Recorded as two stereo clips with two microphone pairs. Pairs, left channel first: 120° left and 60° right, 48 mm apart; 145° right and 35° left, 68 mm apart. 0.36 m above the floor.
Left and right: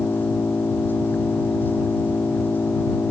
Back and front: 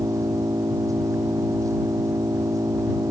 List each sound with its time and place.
0.0 s an engine running: 65° left